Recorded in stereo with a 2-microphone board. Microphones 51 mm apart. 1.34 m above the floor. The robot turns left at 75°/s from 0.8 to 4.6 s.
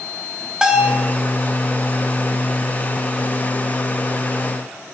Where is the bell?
15° right (ahead or behind), 2.5 m; by 1.1 s 5° left (ahead or behind), 2.5 m.